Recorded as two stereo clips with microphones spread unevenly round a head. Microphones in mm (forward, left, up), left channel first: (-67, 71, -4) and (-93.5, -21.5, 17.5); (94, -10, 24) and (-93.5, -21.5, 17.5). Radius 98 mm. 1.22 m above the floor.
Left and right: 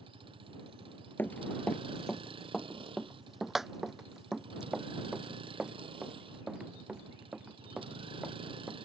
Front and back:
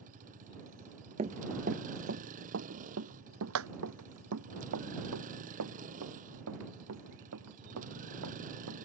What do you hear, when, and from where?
0.0 s a vehicle: 130° right
1.2 s running footsteps: 145° left; by 8.8 s 175° left